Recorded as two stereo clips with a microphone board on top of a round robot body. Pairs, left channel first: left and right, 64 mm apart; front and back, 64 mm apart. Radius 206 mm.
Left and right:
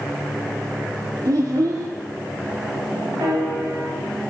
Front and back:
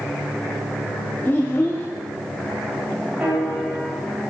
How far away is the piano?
About 5 m.